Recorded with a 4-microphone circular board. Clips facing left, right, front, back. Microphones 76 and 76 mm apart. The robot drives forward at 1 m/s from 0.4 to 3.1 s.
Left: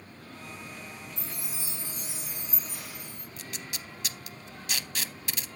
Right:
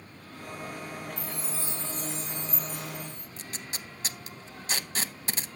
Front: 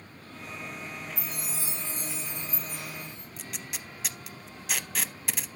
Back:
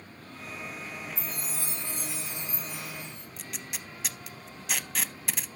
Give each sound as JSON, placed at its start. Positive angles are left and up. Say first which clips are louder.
{"t": 1.2, "sound": "a chime", "louder": "right 4 dB, even", "azimuth_deg": 140, "distance_m": 0.6}
{"t": 3.4, "sound": "tape being pulled", "louder": "left 1 dB, even", "azimuth_deg": -90, "distance_m": 0.5}